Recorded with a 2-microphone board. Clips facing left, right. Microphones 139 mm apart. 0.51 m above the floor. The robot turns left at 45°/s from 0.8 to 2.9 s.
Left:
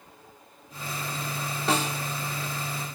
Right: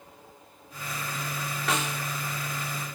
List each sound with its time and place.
1.7 s a snare drum: 30° left (ahead or behind), 0.8 m; by 2.0 s 35° left (ahead or behind), 0.8 m